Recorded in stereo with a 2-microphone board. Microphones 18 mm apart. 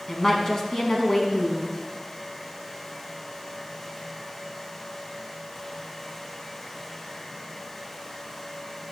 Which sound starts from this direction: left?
A woman speaking, at 0.1 s.